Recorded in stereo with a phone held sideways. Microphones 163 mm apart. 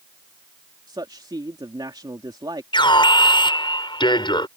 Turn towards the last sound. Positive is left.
turn(degrees=30)  # may be behind; listen again after turning